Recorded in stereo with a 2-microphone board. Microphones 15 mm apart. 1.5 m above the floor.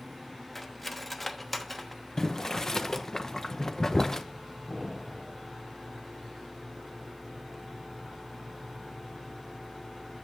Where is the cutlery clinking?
5° left (ahead or behind), 1.0 m.